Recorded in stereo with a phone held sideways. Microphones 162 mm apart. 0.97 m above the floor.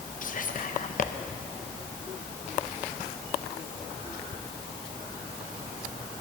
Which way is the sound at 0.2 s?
55° left (ahead or behind).